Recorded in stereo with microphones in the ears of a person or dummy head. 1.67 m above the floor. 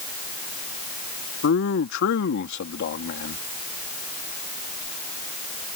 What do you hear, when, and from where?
1.4 s a man speaking: 65° left (ahead or behind)